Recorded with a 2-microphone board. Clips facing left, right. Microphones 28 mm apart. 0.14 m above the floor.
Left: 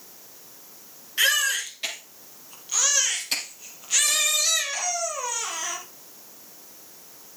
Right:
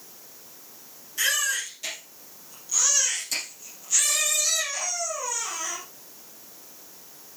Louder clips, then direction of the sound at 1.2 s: Left 4 dB; 45° left (ahead or behind).